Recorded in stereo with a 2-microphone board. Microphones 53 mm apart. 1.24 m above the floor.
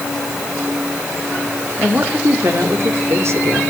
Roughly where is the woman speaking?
Right.